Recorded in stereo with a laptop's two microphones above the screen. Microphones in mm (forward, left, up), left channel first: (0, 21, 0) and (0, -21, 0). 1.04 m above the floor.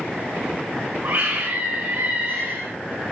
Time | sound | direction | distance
1.0 | a scream | 80° right | 5.5 m